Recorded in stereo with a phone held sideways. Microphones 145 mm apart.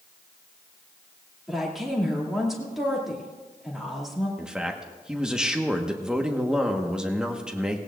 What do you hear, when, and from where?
1.5 s a woman speaking: centre (ahead or behind), 2.5 m
4.4 s a man speaking: 5° right (ahead or behind), 1.3 m